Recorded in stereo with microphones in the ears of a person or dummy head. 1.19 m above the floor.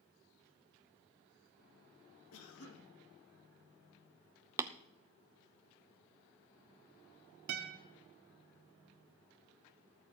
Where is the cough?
75° left (ahead or behind), 1.8 m.